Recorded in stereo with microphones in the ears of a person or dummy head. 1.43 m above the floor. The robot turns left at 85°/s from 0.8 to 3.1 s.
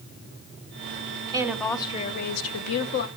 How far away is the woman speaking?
About 0.8 m.